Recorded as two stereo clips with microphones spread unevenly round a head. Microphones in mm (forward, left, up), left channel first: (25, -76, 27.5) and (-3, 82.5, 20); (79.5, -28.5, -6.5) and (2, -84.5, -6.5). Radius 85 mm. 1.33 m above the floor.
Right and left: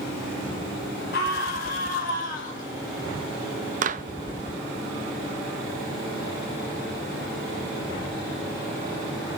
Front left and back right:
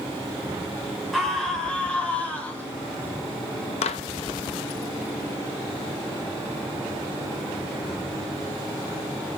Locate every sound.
1.1 s a scream: 55° right, 5.5 m; by 2.7 s 35° right, 7 m
3.8 s a clap: 55° left, 1.0 m